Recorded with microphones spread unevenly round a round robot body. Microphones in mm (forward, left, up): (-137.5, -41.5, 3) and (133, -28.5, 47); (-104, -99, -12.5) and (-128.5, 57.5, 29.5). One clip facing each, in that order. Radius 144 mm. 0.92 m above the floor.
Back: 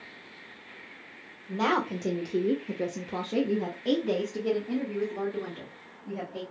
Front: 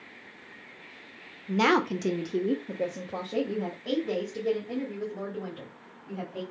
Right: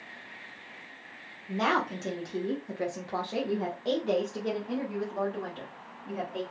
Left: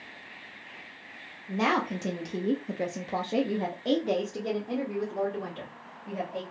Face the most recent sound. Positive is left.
turn(degrees=175)